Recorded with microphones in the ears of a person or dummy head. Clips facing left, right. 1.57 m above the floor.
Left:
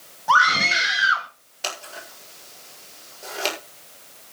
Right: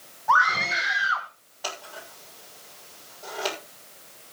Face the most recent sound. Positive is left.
turn(degrees=30)  # may be behind; listen again after turning